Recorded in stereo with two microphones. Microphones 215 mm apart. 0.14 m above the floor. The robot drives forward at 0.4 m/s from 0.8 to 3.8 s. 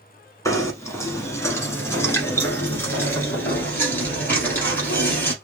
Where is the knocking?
15° left (ahead or behind), 1.1 m; by 5.3 s 10° left (ahead or behind), 1.8 m.